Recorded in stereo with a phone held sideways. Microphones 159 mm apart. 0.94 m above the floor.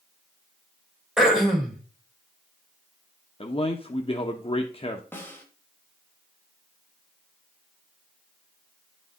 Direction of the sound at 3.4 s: 35° left (ahead or behind).